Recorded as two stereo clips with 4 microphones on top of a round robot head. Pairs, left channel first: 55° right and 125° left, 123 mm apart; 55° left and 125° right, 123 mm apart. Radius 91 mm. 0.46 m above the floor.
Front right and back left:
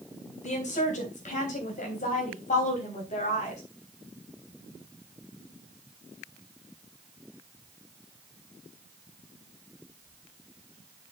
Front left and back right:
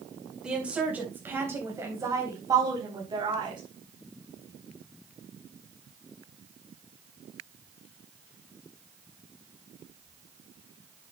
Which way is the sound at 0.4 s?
40° right.